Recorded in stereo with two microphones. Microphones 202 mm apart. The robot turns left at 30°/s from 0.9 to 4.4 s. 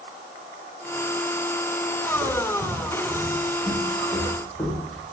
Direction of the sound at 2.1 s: 65° right (ahead or behind).